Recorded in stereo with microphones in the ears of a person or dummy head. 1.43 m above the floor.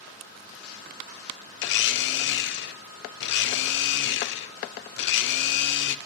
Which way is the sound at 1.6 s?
60° left (ahead or behind).